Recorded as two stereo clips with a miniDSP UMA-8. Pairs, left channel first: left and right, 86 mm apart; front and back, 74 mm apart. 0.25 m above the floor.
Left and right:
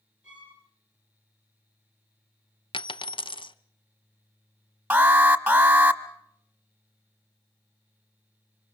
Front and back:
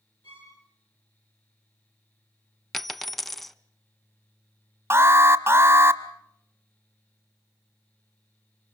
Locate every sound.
0.2 s a violin: 10° right, 9.5 m
2.7 s a dropped coin: 85° left, 0.6 m
4.9 s an alarm: 150° right, 1.1 m